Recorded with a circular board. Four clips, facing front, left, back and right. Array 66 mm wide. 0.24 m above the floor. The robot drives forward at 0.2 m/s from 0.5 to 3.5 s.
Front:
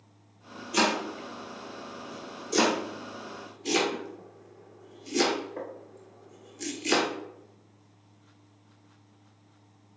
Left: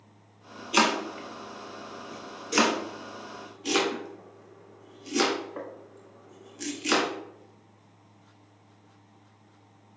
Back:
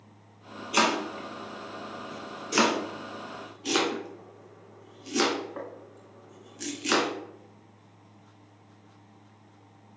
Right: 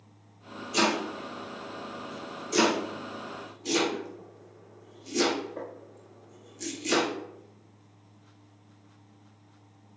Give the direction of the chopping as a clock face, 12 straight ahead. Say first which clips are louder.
Left 2 dB, back 1 dB; 8 o'clock.